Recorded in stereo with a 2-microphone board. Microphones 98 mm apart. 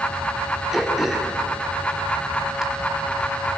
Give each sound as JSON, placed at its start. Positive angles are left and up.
{"t": 0.7, "sound": "throat clearing", "side_deg": -5, "distance_m": 2.5}